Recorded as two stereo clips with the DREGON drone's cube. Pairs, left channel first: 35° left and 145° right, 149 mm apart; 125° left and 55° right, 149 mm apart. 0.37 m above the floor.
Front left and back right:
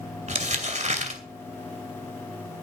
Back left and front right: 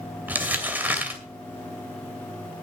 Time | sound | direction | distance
0.3 | crumpling | 130° right | 2.5 m